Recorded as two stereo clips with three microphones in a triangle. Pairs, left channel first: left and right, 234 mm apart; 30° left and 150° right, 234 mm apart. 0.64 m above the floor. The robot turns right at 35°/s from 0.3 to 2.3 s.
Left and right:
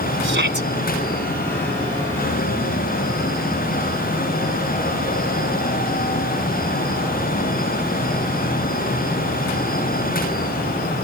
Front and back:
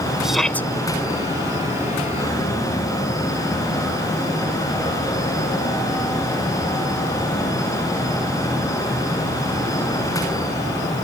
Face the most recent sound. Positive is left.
turn(degrees=10)